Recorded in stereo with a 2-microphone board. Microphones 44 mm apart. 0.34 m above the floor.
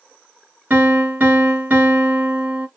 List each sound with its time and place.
0.7 s a piano: 45° right (ahead or behind), 1.2 m